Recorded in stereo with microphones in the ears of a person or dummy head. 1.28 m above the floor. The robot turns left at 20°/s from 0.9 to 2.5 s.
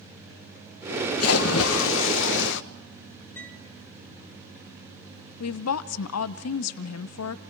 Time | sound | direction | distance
1.2 | a splash | 70° left (ahead or behind) | 1.2 m
3.4 | a piano | 10° left (ahead or behind) | 4.5 m
5.4 | a woman speaking | 80° left | 0.7 m